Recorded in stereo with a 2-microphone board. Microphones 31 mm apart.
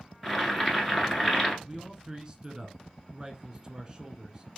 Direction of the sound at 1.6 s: 25° right (ahead or behind).